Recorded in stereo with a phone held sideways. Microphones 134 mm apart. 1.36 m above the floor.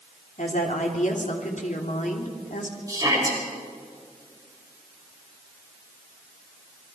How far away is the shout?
About 5.5 m.